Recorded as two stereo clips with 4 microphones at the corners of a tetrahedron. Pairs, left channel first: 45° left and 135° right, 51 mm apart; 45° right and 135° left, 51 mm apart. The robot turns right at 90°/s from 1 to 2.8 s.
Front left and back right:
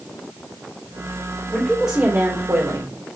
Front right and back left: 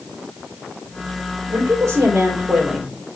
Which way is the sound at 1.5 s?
115° left.